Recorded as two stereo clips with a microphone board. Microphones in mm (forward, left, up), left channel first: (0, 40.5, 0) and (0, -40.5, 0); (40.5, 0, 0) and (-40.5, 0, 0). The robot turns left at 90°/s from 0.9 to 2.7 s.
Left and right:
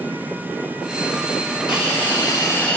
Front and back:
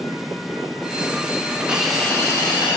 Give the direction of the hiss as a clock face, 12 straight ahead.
8 o'clock.